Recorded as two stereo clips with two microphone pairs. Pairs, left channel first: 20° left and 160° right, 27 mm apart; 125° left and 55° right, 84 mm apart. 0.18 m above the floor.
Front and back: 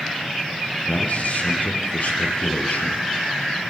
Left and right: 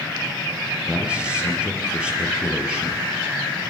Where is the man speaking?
20° left, 4 m.